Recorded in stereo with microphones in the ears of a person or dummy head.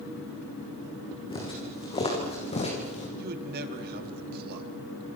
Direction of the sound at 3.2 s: 55° right (ahead or behind).